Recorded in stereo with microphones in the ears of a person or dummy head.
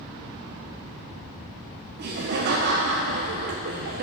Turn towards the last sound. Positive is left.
turn(degrees=-55)  # may be behind; listen again after turning